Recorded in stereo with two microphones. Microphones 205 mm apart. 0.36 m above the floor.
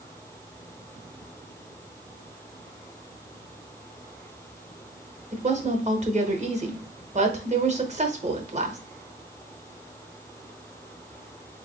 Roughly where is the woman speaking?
Right.